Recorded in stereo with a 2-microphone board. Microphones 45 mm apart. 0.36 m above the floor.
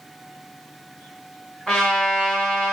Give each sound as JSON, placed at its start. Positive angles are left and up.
{"t": 1.7, "sound": "a trumpet", "side_deg": 5, "distance_m": 1.0}